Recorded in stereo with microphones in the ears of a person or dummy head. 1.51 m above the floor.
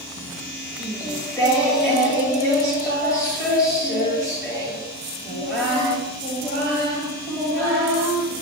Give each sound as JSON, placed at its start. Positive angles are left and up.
{"t": 0.8, "sound": "singing", "side_deg": 20, "distance_m": 2.0}